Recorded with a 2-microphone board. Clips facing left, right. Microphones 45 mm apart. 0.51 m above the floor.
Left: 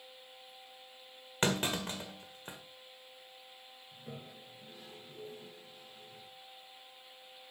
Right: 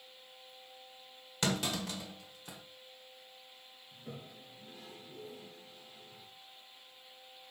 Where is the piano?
No piano in this recording.